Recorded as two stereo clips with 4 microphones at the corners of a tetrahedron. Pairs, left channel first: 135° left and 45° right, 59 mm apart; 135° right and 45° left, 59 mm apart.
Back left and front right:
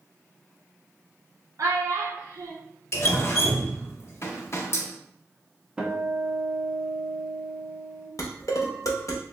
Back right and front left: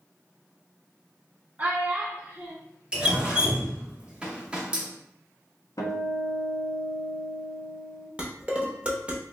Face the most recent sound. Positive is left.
turn(degrees=115)